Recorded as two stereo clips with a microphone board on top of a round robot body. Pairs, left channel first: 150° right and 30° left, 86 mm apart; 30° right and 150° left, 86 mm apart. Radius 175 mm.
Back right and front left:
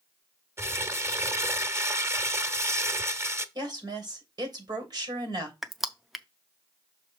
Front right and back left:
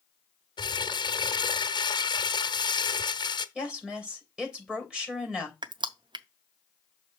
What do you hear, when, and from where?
0.6 s crumpling: 25° right, 1.2 m
3.5 s a woman speaking: 70° left, 3 m
5.6 s crushing: 120° left, 0.6 m